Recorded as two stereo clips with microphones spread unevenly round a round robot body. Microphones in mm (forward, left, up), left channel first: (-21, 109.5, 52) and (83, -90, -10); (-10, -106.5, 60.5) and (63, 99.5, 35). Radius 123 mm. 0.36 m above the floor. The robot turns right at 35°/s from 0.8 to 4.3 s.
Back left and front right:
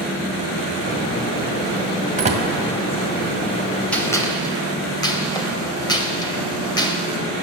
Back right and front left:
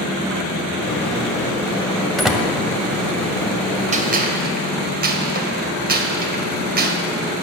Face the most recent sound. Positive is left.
turn(degrees=35)